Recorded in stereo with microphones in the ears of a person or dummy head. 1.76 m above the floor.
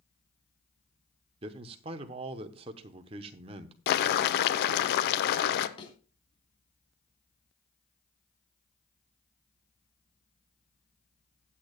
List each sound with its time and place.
1.4 s a man speaking: 35° right (ahead or behind), 0.9 m
3.9 s boiling: 60° left (ahead or behind), 0.8 m
5.8 s a thud: 30° left (ahead or behind), 2.5 m